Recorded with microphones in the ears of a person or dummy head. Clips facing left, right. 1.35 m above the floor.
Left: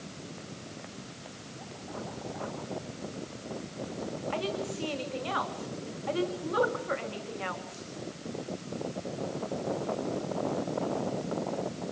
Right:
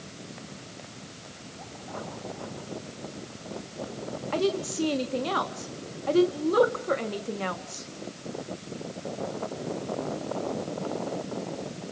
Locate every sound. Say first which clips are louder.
4.3 s a woman speaking: right 9 dB; 45° right (ahead or behind), 2 m